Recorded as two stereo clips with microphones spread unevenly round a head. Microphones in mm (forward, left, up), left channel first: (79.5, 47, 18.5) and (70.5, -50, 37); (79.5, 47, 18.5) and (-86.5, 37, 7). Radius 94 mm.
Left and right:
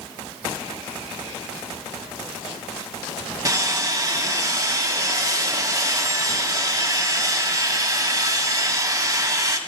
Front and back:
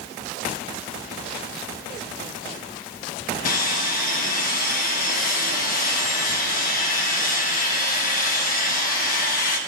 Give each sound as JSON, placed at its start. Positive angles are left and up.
{"t": 3.5, "sound": "sawing", "azimuth_deg": -35, "distance_m": 1.2}